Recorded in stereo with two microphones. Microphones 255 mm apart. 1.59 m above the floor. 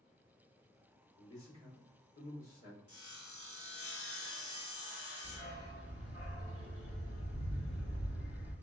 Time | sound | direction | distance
1.2 | a man speaking | 55° left (ahead or behind) | 1.7 m
2.9 | sawing | 60° left (ahead or behind) | 0.7 m
5.2 | a dog barking | 55° left (ahead or behind) | 2.0 m